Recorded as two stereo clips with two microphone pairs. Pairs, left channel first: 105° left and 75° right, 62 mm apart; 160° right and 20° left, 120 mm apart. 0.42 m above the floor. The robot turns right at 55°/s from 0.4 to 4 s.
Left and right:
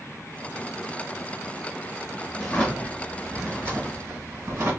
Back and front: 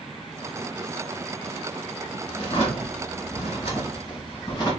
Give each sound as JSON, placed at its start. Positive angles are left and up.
{"t": 2.4, "sound": "a drawer", "azimuth_deg": 160, "distance_m": 1.9}